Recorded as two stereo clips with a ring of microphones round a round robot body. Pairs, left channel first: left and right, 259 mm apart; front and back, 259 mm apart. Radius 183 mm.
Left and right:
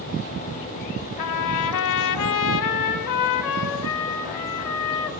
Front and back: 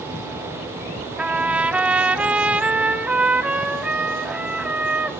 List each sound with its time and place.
1.2 s a trumpet: 95° left, 0.9 m